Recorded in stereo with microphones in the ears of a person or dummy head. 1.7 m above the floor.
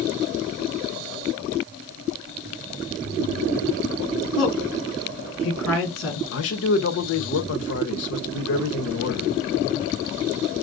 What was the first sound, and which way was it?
A woman speaking, 70° left (ahead or behind).